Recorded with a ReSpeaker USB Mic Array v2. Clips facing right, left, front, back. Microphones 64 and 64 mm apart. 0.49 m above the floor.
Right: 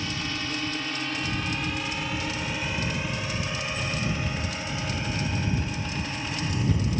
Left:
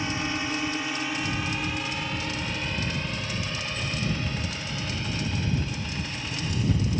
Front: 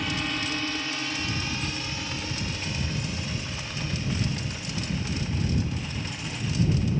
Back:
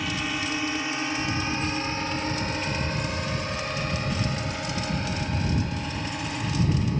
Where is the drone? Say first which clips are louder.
Left 3 dB, back 1 dB; 95° left; by 7.0 s 155° right.